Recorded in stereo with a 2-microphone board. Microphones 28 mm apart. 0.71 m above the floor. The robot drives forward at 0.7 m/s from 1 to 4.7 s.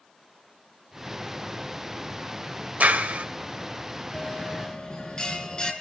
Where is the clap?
75° right (ahead or behind), 2 m; by 3.2 s 85° right, 2.0 m.